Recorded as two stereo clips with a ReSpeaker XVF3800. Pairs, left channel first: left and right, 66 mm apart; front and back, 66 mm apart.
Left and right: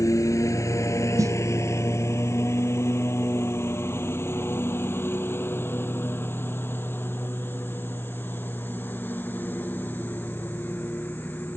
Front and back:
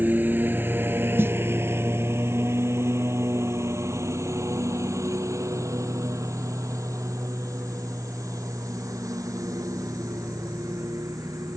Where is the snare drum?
125° right.